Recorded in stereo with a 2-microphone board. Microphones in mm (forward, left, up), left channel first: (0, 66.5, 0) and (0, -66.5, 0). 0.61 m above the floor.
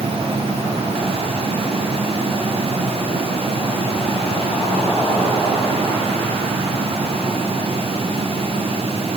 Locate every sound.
Only background noise.